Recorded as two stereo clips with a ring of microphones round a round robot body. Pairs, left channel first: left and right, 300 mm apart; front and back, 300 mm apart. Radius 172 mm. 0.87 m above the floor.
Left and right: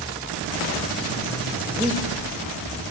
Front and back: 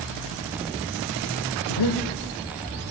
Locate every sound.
1.7 s breathing: 10° right, 1.2 m